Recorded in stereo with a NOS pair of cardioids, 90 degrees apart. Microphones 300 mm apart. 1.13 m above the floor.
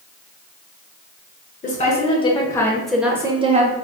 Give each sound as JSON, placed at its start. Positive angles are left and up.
{"t": 1.6, "sound": "a woman speaking", "azimuth_deg": 25, "distance_m": 1.4}